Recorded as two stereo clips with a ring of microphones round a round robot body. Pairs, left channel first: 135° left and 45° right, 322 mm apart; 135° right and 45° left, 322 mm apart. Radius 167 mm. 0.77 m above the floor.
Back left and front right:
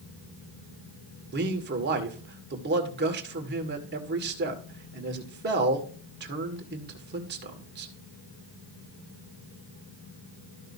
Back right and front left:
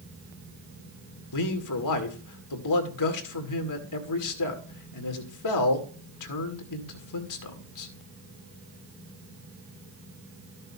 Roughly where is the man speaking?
Right.